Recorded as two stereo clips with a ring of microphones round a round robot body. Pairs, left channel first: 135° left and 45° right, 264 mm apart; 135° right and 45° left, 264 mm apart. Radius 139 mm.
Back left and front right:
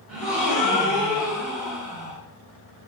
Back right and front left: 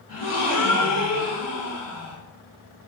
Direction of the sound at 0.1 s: 130° right.